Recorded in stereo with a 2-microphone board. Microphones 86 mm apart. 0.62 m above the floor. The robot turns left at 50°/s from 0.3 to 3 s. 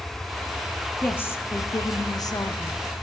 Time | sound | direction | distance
1.0 | a woman speaking | 155° left | 0.7 m